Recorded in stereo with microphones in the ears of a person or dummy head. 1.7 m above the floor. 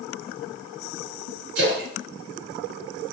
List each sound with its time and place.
1.6 s a splash: 75° right (ahead or behind), 2.0 m